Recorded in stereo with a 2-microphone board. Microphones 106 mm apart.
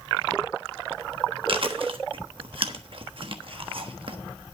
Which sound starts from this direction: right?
Chewing, at 1.5 s.